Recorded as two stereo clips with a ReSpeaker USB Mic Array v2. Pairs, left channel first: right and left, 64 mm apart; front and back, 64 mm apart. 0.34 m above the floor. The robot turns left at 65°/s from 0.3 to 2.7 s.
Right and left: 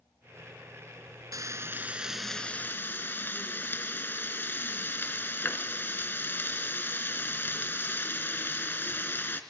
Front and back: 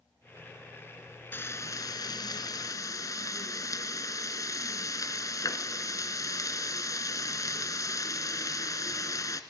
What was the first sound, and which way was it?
Frying, 60° left.